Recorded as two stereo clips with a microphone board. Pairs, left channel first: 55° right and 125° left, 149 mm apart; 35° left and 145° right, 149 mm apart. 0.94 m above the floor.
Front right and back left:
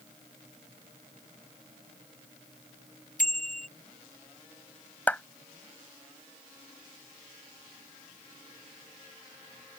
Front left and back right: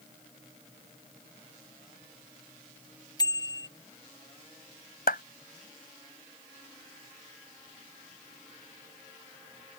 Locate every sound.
3.2 s a bicycle bell: 30° right
5.1 s a clap: 25° left